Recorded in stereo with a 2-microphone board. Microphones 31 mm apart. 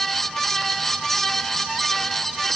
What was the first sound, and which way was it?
Only background noise.